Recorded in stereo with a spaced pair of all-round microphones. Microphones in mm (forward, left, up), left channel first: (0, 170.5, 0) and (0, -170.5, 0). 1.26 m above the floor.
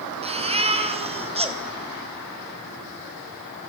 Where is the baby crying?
15° right (ahead or behind), 3 m.